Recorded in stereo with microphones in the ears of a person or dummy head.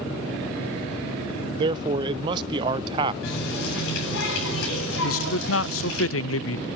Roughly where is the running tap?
Left.